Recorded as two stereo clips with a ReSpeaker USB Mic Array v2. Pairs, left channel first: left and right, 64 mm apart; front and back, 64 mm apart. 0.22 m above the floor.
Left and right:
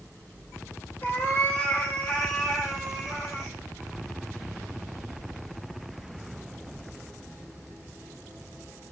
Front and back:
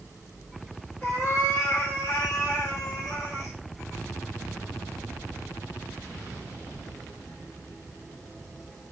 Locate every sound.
1.0 s a cat meowing: 40° left, 1.4 m; by 3.5 s 20° right, 1.5 m